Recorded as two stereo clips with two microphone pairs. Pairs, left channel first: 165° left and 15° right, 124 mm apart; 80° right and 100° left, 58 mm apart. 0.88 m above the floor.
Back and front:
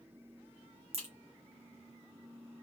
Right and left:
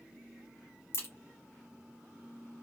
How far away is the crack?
About 1.7 m.